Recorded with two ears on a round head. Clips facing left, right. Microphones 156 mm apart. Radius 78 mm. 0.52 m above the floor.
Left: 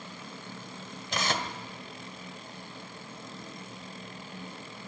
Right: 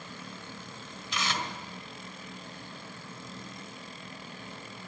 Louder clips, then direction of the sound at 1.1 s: Left 3 dB; 40° left (ahead or behind).